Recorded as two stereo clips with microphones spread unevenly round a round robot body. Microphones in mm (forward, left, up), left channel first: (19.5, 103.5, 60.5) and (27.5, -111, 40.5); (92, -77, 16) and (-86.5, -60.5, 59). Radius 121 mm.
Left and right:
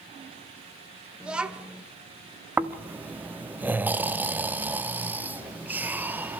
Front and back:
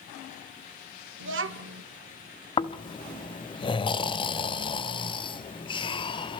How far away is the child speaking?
About 1.2 m.